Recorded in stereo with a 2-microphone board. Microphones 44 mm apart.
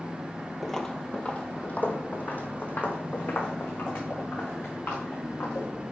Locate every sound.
0.6 s footsteps: 5° left (ahead or behind), 0.6 m; by 5.7 s 55° left (ahead or behind), 3 m